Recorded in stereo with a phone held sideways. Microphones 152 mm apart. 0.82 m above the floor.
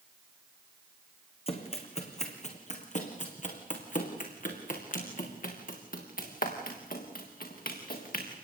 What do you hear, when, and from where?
1.5 s running footsteps: 40° left (ahead or behind), 3.5 m; by 8.3 s 75° left (ahead or behind), 6 m